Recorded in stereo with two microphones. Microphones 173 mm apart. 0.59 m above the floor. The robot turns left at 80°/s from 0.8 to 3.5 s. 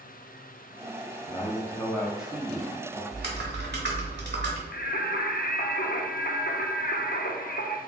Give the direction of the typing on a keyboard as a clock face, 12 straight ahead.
2 o'clock.